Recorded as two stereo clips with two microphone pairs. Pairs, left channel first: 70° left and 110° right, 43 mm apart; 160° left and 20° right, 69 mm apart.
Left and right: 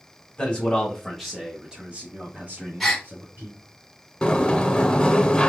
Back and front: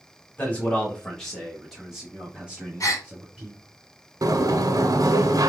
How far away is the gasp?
About 1.4 m.